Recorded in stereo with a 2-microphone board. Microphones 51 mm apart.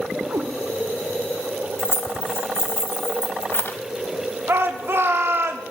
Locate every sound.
0.3 s a cat meowing: 85° right, 0.9 m
1.8 s keys jangling: 50° left (ahead or behind), 0.7 m
4.5 s a shout: 50° right (ahead or behind), 1.1 m